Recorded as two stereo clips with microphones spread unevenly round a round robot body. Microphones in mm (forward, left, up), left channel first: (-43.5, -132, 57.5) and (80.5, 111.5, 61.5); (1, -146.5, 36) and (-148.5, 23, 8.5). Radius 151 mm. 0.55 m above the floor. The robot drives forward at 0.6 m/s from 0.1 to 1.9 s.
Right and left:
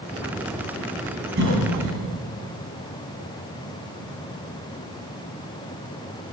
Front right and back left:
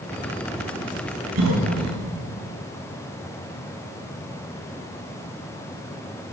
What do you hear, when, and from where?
1.4 s a cough: 120° left, 4 m; by 2.0 s 125° left, 4 m